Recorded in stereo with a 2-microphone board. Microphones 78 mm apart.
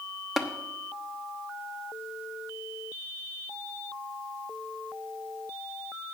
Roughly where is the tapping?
Centre.